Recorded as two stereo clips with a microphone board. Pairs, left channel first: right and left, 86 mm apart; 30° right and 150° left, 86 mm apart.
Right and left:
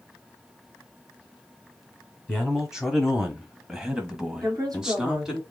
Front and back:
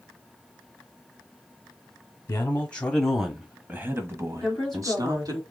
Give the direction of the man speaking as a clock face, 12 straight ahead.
12 o'clock.